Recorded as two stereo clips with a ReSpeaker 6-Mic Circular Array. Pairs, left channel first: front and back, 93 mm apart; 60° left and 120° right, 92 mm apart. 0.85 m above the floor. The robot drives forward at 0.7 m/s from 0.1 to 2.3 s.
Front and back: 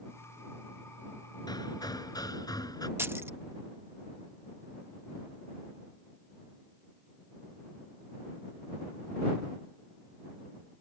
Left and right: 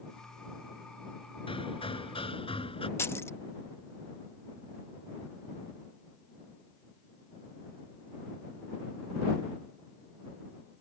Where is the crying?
No crying in this recording.